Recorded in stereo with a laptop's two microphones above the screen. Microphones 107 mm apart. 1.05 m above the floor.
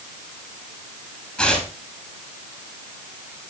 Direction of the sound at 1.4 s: 5° left (ahead or behind).